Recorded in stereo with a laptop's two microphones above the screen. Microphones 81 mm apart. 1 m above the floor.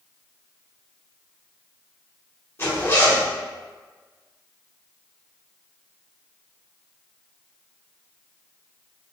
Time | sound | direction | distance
2.6 | a zipper | 35° left (ahead or behind) | 1.9 m